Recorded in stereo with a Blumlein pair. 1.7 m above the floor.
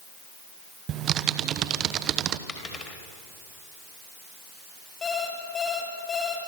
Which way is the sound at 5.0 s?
20° left.